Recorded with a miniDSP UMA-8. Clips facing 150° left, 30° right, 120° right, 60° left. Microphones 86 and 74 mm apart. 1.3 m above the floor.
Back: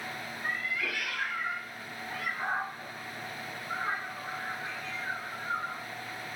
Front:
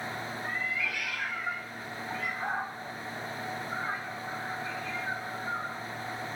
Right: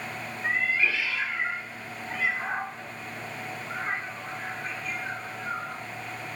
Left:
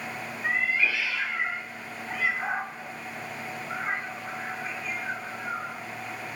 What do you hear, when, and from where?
0.4 s a cat meowing: 145° left, 1.9 m